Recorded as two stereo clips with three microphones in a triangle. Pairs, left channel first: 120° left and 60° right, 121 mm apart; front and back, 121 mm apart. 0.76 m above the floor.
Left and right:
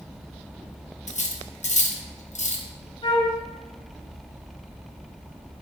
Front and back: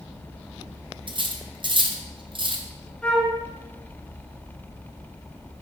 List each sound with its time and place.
1.1 s cutlery clinking: 130° left, 0.5 m
3.0 s a flute: 75° left, 1.2 m